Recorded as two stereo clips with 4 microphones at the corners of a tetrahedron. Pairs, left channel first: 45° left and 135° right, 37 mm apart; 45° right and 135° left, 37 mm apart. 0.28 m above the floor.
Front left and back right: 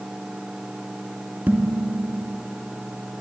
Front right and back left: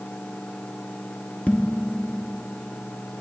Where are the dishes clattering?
95° right, 2.5 m.